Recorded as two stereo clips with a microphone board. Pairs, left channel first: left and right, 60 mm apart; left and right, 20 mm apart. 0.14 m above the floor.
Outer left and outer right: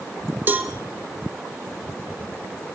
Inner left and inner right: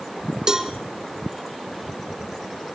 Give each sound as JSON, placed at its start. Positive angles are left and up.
{"t": 0.5, "sound": "a cowbell", "side_deg": -30, "distance_m": 1.7}